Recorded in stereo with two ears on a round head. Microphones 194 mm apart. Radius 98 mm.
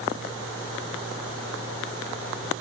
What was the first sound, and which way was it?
Only background noise.